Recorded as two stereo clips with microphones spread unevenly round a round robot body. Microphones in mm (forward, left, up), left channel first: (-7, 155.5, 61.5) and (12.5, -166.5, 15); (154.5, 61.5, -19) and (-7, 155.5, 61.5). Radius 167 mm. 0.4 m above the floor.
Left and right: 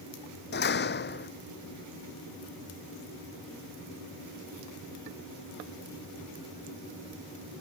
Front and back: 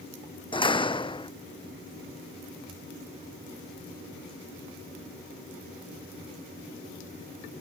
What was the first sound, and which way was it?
A door slam, 35° left.